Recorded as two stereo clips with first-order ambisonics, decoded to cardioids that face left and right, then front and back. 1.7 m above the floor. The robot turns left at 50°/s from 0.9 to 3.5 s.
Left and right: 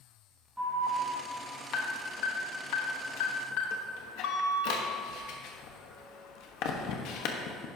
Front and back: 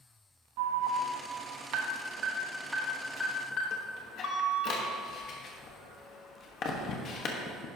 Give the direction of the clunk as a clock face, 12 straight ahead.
I don't hear a clunk.